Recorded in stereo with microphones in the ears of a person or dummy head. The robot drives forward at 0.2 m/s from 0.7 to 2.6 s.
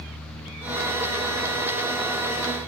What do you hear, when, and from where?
Only background noise.